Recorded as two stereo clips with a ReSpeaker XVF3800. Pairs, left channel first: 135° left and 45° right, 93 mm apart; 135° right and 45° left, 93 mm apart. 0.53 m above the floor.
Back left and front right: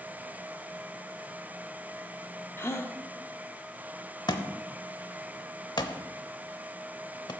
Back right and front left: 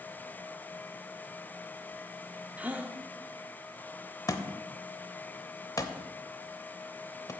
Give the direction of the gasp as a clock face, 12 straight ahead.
9 o'clock.